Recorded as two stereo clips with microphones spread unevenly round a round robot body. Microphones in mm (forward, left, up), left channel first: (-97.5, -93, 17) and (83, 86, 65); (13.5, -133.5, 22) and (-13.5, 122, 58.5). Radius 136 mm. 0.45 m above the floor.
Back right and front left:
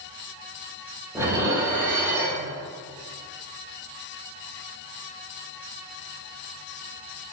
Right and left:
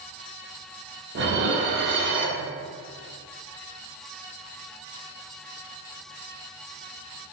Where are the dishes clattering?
135° left, 0.7 m.